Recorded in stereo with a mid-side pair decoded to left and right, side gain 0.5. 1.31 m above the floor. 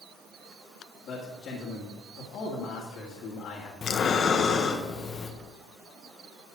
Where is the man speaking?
60° left, 2.5 m.